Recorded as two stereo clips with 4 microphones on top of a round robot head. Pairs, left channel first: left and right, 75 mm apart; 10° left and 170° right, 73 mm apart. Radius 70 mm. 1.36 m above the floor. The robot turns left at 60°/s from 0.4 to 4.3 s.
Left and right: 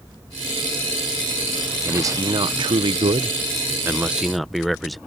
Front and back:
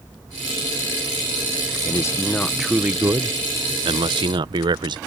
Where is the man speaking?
30° right; by 5.0 s straight behind.